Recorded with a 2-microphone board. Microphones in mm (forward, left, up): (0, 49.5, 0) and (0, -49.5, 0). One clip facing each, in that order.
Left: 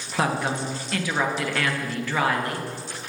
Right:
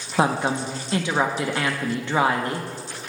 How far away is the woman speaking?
About 0.5 m.